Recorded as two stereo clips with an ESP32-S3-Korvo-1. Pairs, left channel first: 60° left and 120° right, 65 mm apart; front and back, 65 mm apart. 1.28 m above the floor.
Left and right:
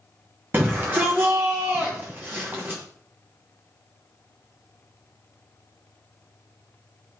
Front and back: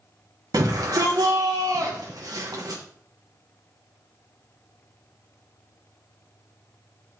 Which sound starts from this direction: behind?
A shout, at 0.5 s.